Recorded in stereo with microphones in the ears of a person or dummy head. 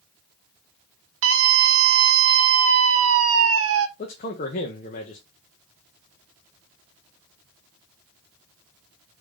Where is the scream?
70° right (ahead or behind), 0.6 m.